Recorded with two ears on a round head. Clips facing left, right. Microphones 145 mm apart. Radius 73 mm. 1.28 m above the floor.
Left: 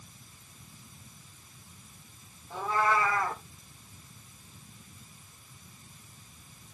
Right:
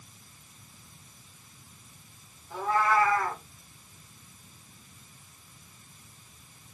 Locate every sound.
2.5 s a cat meowing: 20° left (ahead or behind), 8.5 m